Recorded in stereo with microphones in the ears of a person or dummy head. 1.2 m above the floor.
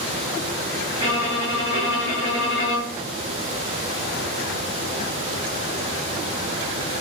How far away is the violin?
About 1.5 m.